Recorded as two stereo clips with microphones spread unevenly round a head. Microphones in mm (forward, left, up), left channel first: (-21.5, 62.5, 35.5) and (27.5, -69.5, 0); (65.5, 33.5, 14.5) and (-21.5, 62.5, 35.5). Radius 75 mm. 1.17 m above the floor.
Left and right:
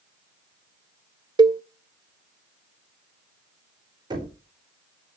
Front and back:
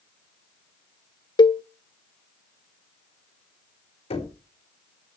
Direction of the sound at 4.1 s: 10° right.